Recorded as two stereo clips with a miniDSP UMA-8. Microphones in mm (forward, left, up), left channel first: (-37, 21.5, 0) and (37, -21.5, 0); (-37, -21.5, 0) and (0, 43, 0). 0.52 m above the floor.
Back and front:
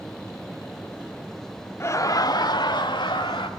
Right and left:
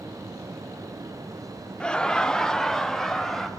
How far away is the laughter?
About 0.8 m.